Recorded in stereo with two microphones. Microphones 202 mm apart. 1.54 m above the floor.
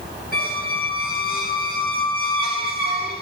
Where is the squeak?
45° left (ahead or behind), 2.5 m.